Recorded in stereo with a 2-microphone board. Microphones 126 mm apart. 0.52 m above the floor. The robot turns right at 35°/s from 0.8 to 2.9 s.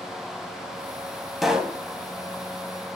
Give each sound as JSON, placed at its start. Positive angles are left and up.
{"t": 1.4, "sound": "a pop", "side_deg": 0, "distance_m": 0.5}